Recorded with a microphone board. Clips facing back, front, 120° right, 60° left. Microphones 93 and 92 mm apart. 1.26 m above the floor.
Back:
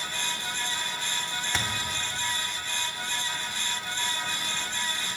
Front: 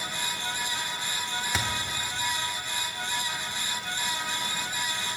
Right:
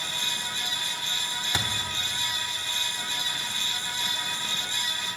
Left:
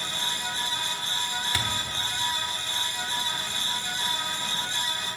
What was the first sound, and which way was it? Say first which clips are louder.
A thud: even, right 2 dB; 80° right.